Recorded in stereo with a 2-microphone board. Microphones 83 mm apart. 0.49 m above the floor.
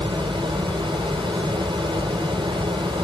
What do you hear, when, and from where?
0.0 s running water: 75° right (ahead or behind), 3.5 m